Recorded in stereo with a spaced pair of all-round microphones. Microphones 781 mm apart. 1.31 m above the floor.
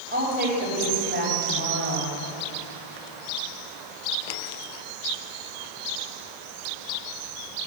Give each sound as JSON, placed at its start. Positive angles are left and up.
{"t": 0.1, "sound": "a woman speaking", "side_deg": -15, "distance_m": 6.0}